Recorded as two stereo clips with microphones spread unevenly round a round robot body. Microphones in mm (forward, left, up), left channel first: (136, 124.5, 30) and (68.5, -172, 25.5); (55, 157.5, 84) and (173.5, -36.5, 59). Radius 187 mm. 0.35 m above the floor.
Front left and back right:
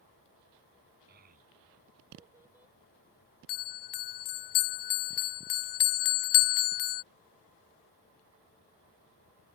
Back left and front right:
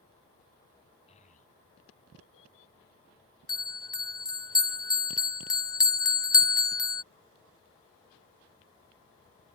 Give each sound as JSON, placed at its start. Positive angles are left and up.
{"t": 1.1, "sound": "a child speaking", "azimuth_deg": -170}
{"t": 3.5, "sound": "a bell", "azimuth_deg": 45}